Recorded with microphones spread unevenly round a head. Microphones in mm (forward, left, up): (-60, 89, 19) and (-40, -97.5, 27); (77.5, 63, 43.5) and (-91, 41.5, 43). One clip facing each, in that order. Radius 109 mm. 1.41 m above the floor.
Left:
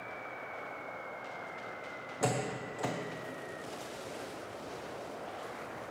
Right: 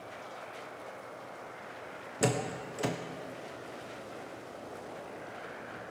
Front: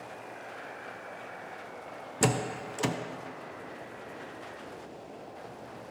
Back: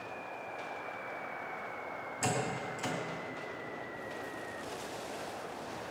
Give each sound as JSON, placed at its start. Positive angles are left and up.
{"t": 2.2, "sound": "a door slam", "azimuth_deg": -20, "distance_m": 0.6}